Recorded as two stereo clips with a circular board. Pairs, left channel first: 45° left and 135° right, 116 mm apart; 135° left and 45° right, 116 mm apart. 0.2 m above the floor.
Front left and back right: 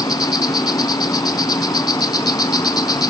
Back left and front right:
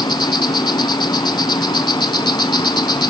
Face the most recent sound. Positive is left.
turn(degrees=90)